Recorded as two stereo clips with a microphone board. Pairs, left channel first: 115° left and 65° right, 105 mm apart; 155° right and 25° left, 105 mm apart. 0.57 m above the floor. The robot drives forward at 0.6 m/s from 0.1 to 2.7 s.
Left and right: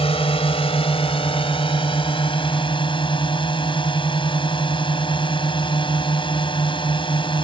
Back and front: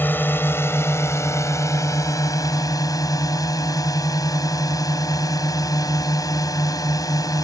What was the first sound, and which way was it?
A drone, 130° left.